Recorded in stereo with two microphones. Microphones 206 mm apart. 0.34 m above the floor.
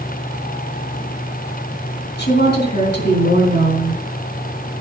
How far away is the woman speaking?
About 4.5 m.